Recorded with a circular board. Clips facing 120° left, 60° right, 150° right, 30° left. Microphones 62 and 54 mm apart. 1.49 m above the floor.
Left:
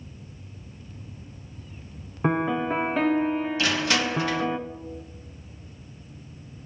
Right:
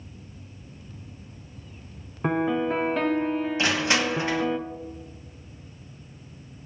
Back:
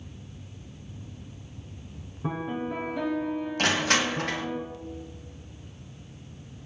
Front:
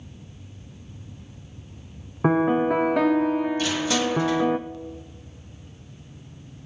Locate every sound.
2.2 s a piano: 40° left, 0.8 m
3.6 s crushing: 125° right, 1.6 m